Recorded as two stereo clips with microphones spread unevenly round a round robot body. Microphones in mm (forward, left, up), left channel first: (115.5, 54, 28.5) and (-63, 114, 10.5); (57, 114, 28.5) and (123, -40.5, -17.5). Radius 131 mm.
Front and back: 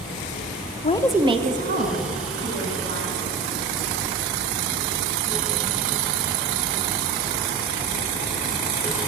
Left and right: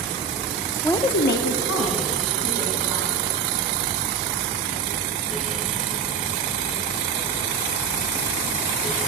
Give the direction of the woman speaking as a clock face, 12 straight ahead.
11 o'clock.